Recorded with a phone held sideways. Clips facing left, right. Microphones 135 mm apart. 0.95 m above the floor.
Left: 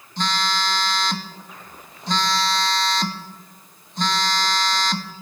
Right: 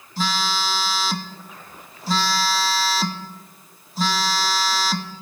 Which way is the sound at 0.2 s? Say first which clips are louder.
Even; 5° right (ahead or behind).